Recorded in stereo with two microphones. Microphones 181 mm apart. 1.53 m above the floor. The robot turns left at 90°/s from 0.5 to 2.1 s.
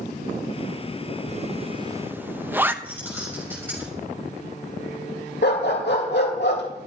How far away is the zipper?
About 0.8 m.